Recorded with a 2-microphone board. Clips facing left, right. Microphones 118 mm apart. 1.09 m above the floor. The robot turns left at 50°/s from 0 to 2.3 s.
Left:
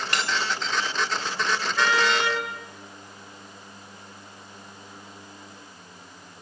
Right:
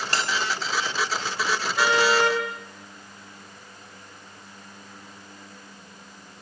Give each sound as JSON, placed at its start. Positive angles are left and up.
{"t": 0.1, "sound": "a bell", "side_deg": -35, "distance_m": 4.0}
{"t": 1.8, "sound": "a car horn", "side_deg": -15, "distance_m": 9.0}